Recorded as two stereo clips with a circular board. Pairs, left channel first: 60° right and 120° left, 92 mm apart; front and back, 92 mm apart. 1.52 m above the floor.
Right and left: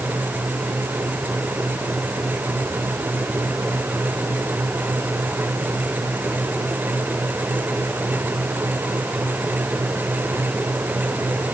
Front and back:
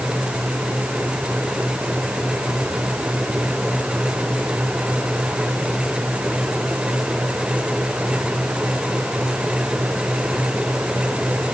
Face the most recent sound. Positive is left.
No sound to turn to.